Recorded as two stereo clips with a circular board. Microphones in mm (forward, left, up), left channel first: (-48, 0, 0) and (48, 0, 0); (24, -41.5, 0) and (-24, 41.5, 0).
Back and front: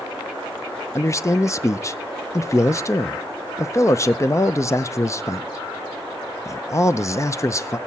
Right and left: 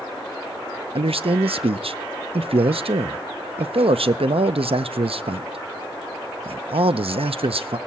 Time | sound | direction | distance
0.9 | a man speaking | 120° left | 0.5 m